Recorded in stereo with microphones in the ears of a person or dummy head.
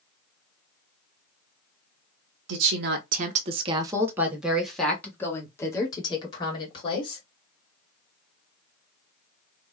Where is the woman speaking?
60° right (ahead or behind), 1.0 m; by 7.2 s 30° left (ahead or behind), 2.5 m.